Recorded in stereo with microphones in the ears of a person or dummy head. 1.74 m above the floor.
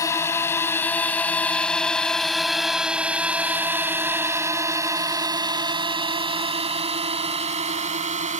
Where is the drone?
20° left (ahead or behind); by 8.4 s 40° right (ahead or behind).